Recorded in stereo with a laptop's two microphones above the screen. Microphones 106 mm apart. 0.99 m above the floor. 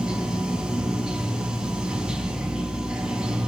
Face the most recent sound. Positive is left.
turn(degrees=-5)  # may be behind; listen again after turning